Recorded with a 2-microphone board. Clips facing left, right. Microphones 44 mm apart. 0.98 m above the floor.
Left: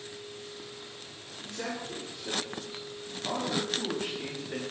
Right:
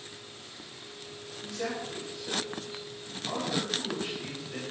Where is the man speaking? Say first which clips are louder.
Right 2 dB; 65° left (ahead or behind), 3 m; by 4.6 s 50° left (ahead or behind), 1.3 m.